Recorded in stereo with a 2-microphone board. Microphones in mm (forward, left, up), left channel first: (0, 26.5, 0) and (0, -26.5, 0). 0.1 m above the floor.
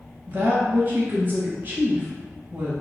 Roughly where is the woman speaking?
Right.